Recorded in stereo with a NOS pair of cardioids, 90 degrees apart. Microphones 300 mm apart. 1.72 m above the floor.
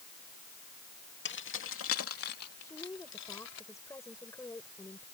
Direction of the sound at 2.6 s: 10° left.